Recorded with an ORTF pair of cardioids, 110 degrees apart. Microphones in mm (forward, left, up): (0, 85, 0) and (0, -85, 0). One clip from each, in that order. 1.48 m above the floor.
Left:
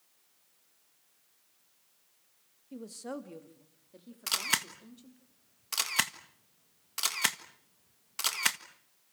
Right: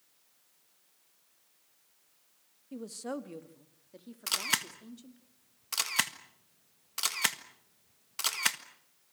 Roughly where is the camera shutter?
Ahead.